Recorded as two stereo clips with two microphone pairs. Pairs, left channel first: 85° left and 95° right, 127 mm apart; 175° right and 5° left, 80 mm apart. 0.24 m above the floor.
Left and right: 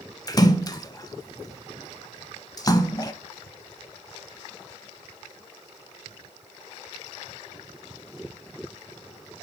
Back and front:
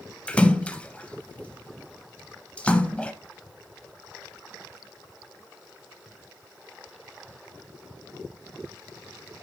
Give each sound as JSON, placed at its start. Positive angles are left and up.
{"t": 0.3, "sound": "a splash", "azimuth_deg": 120, "distance_m": 0.6}